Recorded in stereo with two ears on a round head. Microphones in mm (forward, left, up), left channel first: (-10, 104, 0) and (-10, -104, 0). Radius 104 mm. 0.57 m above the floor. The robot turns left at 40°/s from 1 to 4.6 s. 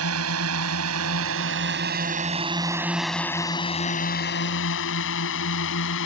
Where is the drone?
70° right (ahead or behind); by 6.1 s 60° left (ahead or behind).